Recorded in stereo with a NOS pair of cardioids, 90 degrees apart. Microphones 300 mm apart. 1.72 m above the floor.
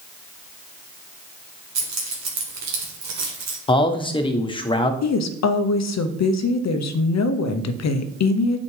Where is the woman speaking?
65° left, 0.8 m.